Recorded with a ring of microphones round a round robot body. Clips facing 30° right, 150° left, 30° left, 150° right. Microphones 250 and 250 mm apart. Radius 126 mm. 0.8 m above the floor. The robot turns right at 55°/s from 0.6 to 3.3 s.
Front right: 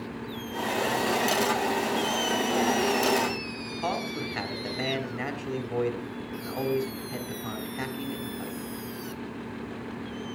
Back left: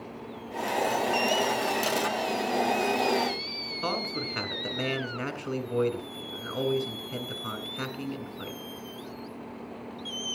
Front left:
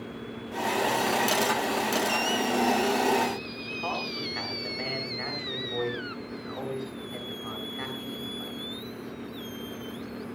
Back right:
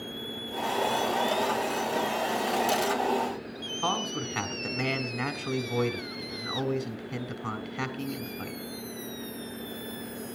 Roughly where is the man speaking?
Behind right.